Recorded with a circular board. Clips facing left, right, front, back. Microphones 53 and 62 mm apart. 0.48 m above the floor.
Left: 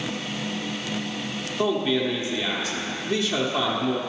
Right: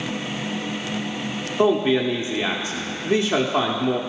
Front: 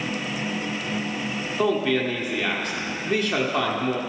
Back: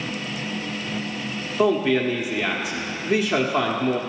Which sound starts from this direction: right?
A man speaking, at 1.6 s.